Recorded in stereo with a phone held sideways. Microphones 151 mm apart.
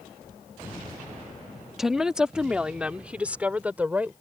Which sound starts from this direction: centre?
A woman speaking, at 1.8 s.